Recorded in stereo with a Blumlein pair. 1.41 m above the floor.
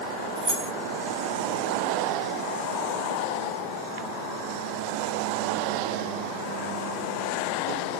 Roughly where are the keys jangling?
Ahead.